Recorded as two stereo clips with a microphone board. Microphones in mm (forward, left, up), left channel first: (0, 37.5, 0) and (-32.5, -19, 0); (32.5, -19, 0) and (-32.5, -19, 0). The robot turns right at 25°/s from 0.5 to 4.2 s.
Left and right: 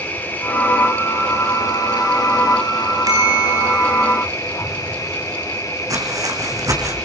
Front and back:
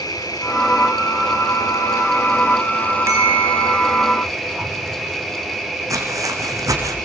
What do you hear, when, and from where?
0.0 s an insect: straight ahead, 5.5 m; by 7.0 s 95° left, 5.5 m
3.1 s a bell: 135° right, 8.5 m; by 4.2 s 110° right, 8.5 m
5.9 s footsteps: 150° right, 5.5 m